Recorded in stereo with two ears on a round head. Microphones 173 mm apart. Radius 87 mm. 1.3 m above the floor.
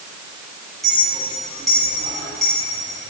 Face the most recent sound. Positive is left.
turn(degrees=0)  # may be behind; listen again after turning